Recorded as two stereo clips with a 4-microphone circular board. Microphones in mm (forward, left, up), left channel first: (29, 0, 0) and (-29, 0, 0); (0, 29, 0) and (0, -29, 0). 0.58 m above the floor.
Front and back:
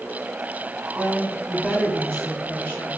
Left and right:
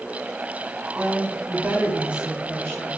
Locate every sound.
0.9 s a woman speaking: 105° right, 1.3 m; by 2.9 s 45° left, 0.8 m